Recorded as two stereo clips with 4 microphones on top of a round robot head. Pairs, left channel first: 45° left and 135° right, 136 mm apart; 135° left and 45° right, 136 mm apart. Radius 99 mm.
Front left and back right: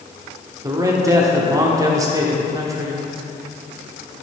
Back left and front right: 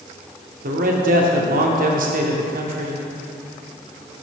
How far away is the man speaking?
About 1.0 m.